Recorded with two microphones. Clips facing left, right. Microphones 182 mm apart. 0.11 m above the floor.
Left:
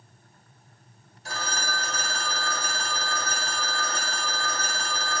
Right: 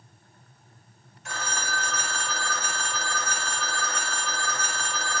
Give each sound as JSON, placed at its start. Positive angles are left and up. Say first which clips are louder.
{"t": 1.2, "sound": "a phone ringing", "louder": "left 1 dB", "side_deg": 35, "distance_m": 0.9}